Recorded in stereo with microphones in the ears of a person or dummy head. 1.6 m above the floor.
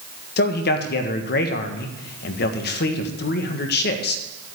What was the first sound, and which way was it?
A man speaking, 60° left (ahead or behind).